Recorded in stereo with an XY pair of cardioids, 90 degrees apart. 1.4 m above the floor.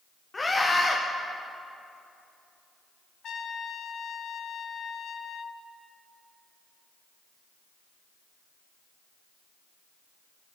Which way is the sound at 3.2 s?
70° left.